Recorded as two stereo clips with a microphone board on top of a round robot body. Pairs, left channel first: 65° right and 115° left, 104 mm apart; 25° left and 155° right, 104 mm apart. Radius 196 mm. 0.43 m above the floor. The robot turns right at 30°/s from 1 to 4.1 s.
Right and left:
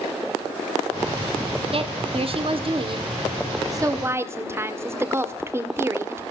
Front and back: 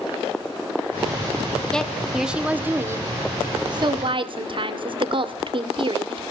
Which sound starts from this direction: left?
A woman speaking, at 1.7 s.